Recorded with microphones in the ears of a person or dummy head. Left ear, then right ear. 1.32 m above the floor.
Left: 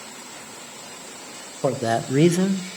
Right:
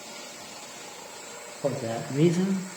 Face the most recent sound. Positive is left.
turn(degrees=-5)  # may be behind; listen again after turning